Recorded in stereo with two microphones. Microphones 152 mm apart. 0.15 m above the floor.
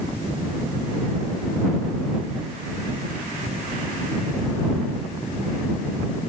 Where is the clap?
No clap in this recording.